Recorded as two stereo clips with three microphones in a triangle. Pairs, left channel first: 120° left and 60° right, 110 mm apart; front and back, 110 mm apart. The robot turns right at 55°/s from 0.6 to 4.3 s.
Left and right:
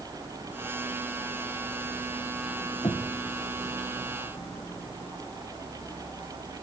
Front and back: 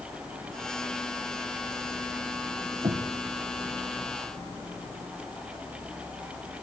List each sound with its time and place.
2.8 s knocking: 165° left, 2.5 m; by 3.1 s straight behind, 2.5 m